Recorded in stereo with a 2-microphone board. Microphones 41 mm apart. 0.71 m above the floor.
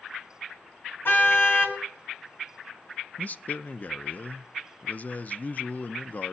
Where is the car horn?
60° left (ahead or behind), 2 m.